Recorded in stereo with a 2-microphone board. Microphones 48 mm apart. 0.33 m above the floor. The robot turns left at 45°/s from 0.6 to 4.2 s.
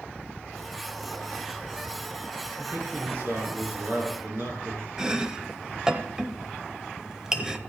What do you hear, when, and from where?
2.6 s a man speaking: 40° right, 4 m; by 4.9 s 115° right, 4 m
5.0 s chopping: 15° right (ahead or behind), 0.6 m